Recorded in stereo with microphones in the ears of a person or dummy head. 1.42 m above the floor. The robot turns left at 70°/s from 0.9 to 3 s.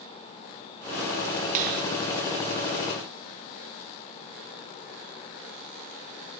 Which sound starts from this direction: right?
A finger snap, at 1.6 s.